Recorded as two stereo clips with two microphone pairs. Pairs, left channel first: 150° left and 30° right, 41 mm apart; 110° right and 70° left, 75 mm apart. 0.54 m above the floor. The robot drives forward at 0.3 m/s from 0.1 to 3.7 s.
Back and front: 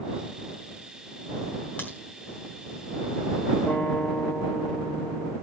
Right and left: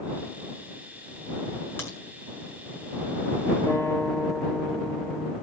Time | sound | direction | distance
1.8 | a crack | 170° right | 6 m
3.7 | a guitar | 170° right | 3.5 m